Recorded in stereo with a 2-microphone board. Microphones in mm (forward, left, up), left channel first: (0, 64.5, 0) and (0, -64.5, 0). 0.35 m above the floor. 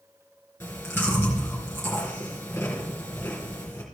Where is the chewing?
15° left (ahead or behind), 3.5 m.